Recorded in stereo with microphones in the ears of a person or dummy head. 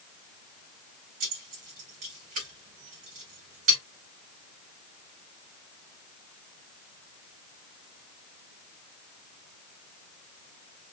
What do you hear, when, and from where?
1.2 s keys jangling: 45° right (ahead or behind), 2 m